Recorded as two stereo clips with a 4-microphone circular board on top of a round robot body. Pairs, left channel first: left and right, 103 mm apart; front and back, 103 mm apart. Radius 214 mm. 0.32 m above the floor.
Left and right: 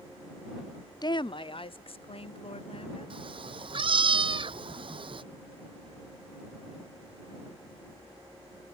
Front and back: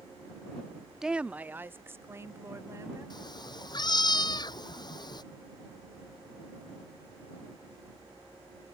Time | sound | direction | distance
1.0 | a woman speaking | 95° left | ?
3.1 | a cat meowing | 50° right | ?